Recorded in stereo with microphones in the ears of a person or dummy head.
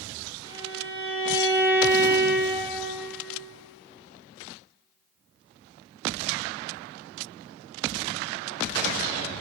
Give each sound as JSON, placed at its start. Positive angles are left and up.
{"t": 0.5, "sound": "a violin", "side_deg": 20, "distance_m": 2.0}